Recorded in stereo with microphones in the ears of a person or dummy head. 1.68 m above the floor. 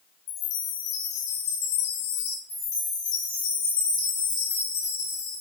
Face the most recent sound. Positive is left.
turn(degrees=20)  # may be behind; listen again after turning